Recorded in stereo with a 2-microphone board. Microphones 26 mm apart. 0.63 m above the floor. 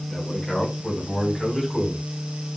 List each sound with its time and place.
0.1 s a man speaking: 30° left (ahead or behind), 5 m; by 2.0 s 10° left (ahead or behind), 4 m